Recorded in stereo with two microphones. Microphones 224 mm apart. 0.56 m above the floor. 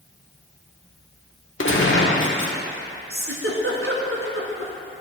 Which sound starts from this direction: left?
A gunshot, at 1.6 s.